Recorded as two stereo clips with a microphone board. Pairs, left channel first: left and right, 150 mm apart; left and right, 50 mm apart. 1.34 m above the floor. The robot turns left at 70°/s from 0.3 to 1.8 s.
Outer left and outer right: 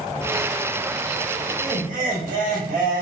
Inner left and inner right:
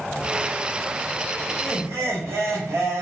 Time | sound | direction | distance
1.5 | laughter | 85° right | 1.6 m